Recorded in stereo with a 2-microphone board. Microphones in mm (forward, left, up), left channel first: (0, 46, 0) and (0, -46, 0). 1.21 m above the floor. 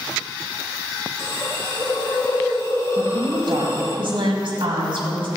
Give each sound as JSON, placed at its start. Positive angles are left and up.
{"t": 1.2, "sound": "a hiss", "side_deg": 30, "distance_m": 1.4}
{"t": 3.0, "sound": "a woman speaking", "side_deg": -55, "distance_m": 2.0}